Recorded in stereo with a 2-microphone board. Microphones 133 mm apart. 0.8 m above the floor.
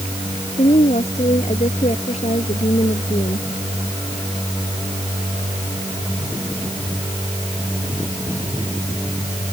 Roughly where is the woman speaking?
Left.